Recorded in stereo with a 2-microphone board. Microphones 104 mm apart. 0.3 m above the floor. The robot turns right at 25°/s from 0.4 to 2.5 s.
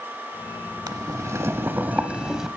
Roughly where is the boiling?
Ahead right.